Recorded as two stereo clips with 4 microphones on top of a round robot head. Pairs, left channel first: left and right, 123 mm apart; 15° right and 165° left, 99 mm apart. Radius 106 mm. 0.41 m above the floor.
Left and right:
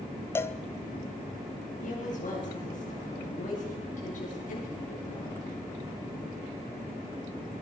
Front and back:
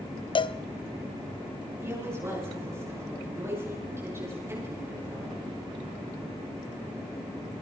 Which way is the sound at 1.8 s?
105° left.